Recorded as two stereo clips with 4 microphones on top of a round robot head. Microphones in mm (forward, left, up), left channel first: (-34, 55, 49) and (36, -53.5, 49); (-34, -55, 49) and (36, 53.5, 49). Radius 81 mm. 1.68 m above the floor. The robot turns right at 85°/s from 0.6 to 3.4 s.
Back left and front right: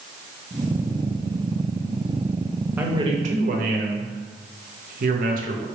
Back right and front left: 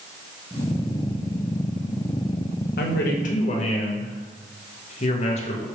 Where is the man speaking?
135° right, 0.7 m; by 5.7 s 80° right, 0.7 m.